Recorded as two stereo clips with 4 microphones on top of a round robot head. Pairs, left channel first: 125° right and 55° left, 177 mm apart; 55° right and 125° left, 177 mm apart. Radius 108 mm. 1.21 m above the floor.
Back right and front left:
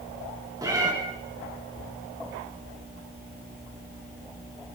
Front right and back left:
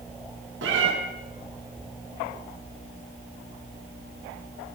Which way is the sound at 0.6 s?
125° left.